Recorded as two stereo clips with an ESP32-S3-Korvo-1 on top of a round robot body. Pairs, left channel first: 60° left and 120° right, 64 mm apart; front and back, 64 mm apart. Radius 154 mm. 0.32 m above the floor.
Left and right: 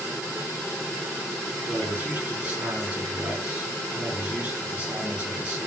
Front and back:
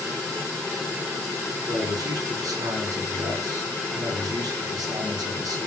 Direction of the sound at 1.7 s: 170° left.